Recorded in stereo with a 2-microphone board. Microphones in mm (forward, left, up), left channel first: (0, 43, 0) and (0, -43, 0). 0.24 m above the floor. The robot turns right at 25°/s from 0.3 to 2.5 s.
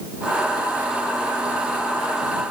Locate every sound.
Only background noise.